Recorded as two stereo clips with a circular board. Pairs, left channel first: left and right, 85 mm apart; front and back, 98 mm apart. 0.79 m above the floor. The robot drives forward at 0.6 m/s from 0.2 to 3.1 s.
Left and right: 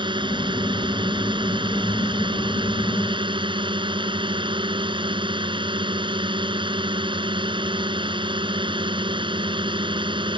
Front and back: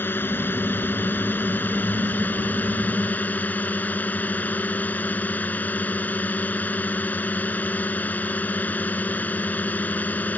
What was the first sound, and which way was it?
A drone, 70° right.